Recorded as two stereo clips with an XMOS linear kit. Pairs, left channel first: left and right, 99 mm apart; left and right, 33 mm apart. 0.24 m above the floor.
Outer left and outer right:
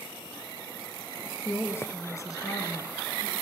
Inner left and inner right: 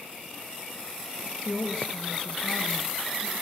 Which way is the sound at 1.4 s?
25° left (ahead or behind).